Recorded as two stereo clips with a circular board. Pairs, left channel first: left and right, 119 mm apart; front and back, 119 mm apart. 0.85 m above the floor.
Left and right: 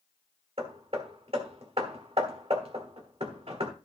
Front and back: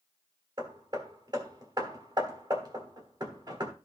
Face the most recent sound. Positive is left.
turn(degrees=-125)